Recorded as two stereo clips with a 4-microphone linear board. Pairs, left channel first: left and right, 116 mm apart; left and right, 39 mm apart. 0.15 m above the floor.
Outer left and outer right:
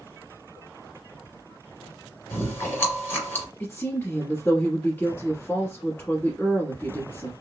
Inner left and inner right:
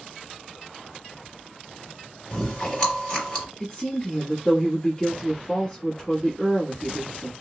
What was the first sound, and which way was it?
Chewing, 20° left (ahead or behind).